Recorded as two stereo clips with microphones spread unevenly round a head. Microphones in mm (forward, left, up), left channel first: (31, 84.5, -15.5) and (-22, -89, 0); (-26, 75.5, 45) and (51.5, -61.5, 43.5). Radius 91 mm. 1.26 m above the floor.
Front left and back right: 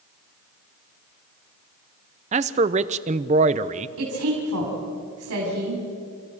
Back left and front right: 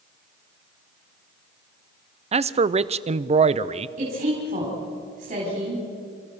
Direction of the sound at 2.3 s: 70° right.